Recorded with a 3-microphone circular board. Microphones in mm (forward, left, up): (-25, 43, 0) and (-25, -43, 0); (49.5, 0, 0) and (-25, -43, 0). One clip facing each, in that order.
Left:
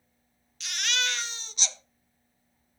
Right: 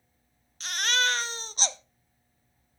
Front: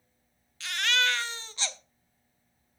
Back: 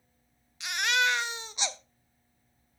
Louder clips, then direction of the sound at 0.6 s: Right 4 dB, back 1 dB; 85° right.